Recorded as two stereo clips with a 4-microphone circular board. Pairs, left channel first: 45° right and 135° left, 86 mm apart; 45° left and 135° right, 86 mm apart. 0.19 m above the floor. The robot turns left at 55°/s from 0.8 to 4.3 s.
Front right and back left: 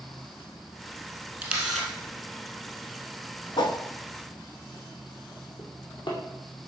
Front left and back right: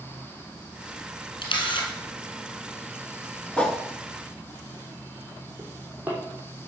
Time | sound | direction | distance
1.4 | a camera shutter | 70° left | 2.5 m
3.6 | a whoosh | 30° right | 0.8 m
5.6 | a drawer | 65° right | 3 m